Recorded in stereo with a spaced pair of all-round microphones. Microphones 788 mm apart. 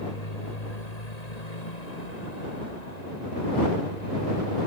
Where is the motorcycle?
50° left (ahead or behind); by 4.7 s 55° left (ahead or behind).